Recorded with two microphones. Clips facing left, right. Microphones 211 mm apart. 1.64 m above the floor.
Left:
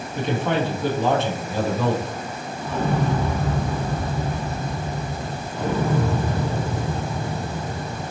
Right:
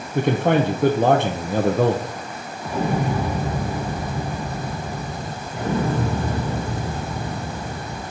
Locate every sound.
0.1 s a man speaking: 55° right (ahead or behind), 0.8 m
2.6 s an explosion: 10° right (ahead or behind), 0.9 m
5.5 s an explosion: 20° right (ahead or behind), 4 m